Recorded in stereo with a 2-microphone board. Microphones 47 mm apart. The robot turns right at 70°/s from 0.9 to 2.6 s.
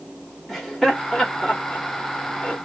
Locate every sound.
0.5 s laughter: 5° left (ahead or behind), 1.5 m; by 2.6 s 35° left (ahead or behind), 1.5 m